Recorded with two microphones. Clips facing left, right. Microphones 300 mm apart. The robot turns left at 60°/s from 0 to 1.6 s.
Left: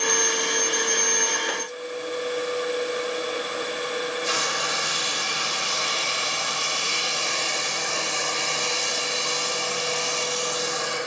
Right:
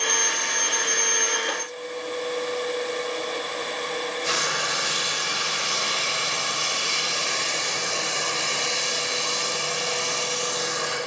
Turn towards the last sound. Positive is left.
turn(degrees=-75)  # may be behind; listen again after turning